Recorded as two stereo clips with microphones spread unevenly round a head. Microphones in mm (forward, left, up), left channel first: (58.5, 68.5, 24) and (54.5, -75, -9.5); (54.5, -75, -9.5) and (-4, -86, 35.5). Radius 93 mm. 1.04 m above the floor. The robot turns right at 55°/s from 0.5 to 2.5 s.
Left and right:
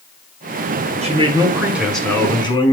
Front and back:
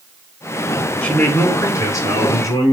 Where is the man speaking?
50° right, 4 m; by 2.7 s 30° left, 4 m.